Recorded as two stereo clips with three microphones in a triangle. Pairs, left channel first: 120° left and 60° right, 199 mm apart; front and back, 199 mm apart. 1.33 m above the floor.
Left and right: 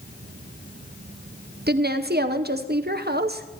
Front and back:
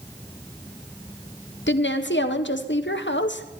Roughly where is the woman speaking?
Ahead right.